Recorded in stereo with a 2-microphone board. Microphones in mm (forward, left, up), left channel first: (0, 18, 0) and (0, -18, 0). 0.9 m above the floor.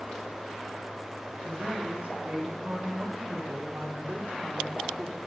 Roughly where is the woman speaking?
Right.